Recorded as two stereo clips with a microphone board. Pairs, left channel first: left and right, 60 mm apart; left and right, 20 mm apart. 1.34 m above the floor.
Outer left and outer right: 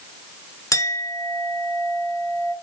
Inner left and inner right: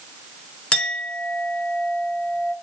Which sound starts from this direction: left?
A clink, at 0.7 s.